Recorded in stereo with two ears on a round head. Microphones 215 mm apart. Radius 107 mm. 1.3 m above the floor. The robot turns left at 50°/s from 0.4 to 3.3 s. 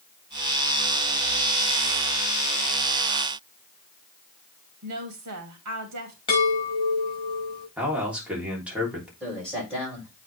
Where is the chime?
25° left (ahead or behind), 6 m.